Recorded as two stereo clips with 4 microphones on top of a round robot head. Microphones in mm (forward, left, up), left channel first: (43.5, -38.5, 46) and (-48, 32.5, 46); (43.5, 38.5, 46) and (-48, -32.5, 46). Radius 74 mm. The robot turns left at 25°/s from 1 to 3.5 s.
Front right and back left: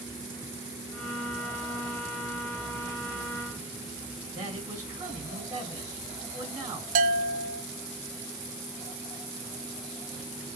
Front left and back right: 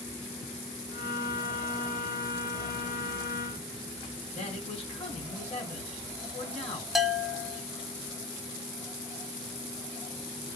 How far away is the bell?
About 0.6 m.